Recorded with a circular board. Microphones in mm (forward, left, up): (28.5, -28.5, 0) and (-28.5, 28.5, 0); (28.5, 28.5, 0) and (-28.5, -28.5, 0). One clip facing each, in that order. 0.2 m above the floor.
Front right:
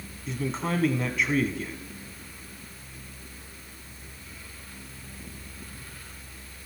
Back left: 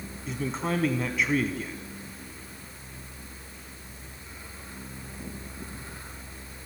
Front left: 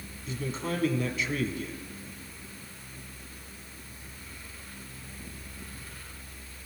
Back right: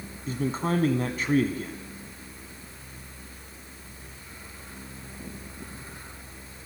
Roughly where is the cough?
I don't hear a cough.